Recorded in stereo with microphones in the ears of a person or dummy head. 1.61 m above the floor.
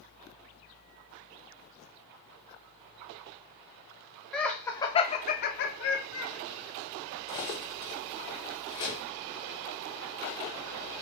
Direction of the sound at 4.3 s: 5° left (ahead or behind).